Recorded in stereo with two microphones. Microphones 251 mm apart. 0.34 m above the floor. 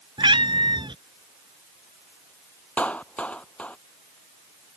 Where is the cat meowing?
20° right (ahead or behind).